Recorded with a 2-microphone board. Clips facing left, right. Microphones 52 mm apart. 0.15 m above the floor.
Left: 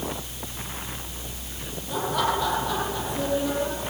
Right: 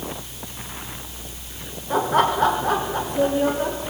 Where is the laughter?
45° right (ahead or behind), 6.5 m.